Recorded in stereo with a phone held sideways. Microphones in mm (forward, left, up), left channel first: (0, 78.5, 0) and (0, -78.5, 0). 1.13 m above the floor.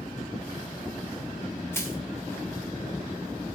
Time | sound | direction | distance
1.7 | crushing | 15° left (ahead or behind) | 2.5 m